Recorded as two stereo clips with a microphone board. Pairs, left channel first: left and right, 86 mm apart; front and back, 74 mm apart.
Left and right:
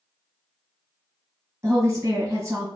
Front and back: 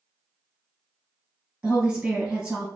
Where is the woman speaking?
120° right, 2.0 m.